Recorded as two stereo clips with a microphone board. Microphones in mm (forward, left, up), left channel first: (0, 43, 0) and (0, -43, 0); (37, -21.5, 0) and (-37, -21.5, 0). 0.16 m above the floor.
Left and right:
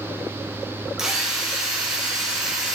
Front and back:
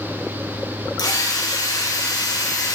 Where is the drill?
5° right, 3 m.